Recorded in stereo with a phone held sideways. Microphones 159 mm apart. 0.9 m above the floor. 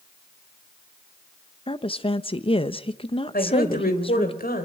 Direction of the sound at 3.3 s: 80° left.